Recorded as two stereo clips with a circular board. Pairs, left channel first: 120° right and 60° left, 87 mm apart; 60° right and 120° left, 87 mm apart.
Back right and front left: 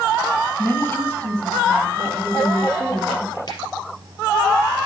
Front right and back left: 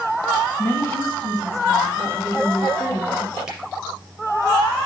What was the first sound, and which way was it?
A woman speaking, 90° right.